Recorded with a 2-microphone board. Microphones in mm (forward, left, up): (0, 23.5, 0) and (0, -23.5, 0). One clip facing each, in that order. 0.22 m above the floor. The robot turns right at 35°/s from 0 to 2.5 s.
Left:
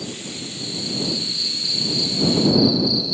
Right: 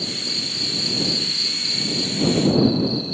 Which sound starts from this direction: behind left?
An insect, at 0.0 s.